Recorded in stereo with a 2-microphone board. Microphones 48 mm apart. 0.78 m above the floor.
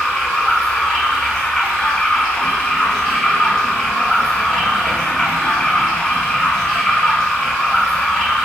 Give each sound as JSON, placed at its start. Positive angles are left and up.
{"t": 0.0, "sound": "running water", "side_deg": 15, "distance_m": 1.2}